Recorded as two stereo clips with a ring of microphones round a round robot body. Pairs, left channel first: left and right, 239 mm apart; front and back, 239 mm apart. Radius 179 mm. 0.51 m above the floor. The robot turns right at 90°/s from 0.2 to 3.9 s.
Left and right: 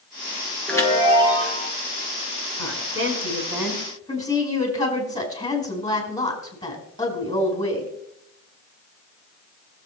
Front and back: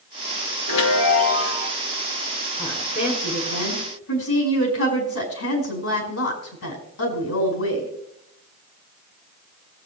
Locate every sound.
0.7 s a chime: straight ahead, 3.5 m; by 1.7 s 95° left, 3.5 m
2.6 s a woman speaking: 105° right, 5 m; by 7.9 s 15° left, 5 m